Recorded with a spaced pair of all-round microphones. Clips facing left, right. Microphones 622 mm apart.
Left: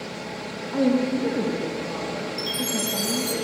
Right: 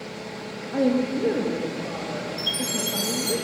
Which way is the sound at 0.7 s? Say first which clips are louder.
Left 1 dB; 25° left (ahead or behind).